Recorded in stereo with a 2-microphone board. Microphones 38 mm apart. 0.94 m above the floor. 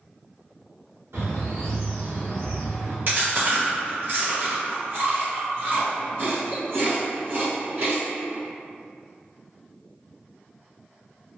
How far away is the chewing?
About 1.3 m.